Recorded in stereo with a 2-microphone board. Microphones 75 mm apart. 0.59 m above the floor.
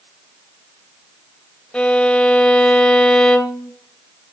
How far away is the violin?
About 0.5 m.